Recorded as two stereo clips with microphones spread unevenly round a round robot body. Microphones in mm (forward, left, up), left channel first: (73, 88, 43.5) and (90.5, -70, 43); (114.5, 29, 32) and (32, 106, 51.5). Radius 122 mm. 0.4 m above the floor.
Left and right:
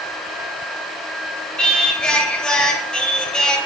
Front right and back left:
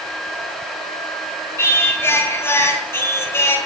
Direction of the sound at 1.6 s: 10° left.